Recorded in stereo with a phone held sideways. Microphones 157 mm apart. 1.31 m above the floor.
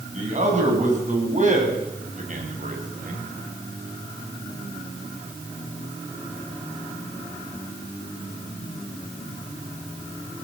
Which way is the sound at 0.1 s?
50° right (ahead or behind).